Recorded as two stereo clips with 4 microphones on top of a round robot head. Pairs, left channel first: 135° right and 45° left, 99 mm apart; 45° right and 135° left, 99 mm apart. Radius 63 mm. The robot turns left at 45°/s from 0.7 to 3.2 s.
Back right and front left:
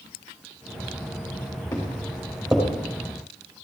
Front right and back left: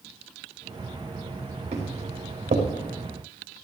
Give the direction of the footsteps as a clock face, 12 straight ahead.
6 o'clock.